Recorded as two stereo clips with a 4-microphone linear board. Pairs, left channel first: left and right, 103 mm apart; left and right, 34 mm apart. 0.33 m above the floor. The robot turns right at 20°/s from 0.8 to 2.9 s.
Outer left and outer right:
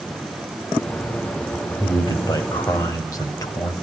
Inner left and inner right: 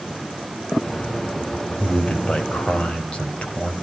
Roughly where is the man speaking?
Left.